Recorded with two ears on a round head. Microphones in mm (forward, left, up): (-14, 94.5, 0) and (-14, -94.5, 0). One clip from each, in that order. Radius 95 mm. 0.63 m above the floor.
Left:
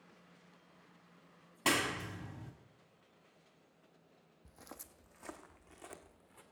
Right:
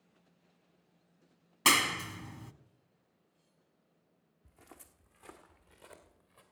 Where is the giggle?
No giggle in this recording.